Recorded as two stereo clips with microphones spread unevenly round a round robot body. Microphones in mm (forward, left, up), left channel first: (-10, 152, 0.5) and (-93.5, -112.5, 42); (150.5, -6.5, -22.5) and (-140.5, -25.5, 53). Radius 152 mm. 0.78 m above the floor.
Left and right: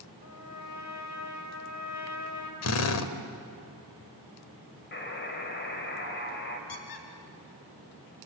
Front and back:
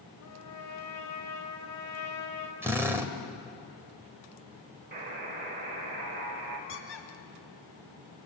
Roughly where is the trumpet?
Ahead left.